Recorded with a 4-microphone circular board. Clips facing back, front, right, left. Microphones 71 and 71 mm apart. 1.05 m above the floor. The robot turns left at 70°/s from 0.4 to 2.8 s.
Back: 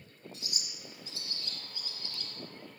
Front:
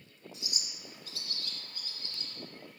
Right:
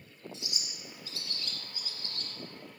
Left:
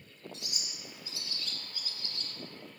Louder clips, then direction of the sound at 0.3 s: Front 1 dB, right 2 dB; 75° left.